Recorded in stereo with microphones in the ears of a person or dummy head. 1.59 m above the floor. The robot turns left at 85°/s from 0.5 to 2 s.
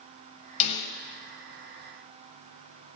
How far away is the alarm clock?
No alarm clock in this recording.